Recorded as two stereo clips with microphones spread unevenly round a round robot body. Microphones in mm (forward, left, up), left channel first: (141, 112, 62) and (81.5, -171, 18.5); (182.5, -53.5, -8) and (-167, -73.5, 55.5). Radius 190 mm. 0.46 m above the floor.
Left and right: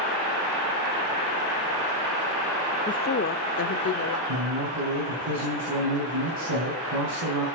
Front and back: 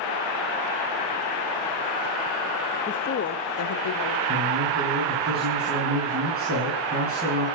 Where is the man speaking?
120° right, 5 m.